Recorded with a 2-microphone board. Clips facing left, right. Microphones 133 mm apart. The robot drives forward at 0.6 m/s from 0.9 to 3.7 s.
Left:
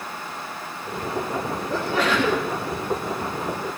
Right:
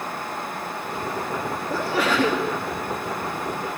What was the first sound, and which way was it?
A sneeze, 10° right (ahead or behind).